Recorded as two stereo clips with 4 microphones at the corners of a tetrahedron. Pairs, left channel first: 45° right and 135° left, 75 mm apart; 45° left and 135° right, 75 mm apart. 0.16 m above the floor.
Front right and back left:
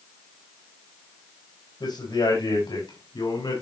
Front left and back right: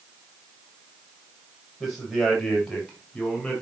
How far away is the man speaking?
About 8 m.